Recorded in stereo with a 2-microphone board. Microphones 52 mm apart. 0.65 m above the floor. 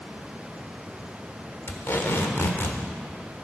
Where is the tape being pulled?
50° left (ahead or behind), 1.2 m.